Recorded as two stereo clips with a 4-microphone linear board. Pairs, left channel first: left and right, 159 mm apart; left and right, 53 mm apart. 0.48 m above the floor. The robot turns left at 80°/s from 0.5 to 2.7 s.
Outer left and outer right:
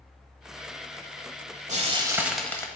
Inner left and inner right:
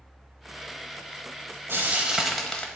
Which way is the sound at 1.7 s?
125° right.